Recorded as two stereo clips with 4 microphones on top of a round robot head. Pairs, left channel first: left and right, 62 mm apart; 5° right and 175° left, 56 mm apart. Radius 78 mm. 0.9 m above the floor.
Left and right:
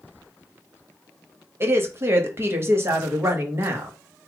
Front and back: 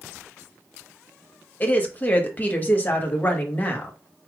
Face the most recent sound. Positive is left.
turn(degrees=-55)